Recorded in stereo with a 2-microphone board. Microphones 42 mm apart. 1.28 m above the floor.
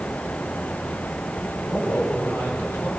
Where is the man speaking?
75° left (ahead or behind), 10 m.